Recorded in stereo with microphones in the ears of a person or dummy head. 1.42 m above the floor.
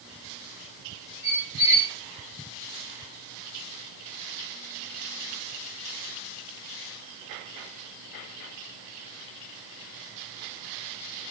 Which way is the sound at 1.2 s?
30° left (ahead or behind).